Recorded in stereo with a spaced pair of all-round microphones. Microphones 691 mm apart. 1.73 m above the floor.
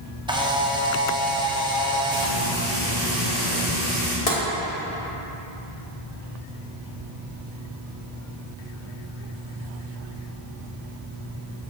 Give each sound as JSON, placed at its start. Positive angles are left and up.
{"t": 0.3, "sound": "a camera shutter", "side_deg": -10, "distance_m": 0.6}
{"t": 2.1, "sound": "frying", "side_deg": -85, "distance_m": 2.0}
{"t": 4.3, "sound": "tapping", "side_deg": 55, "distance_m": 1.1}